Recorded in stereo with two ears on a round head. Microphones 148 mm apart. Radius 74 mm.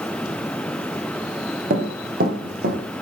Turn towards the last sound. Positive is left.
turn(degrees=-70)  # may be behind; listen again after turning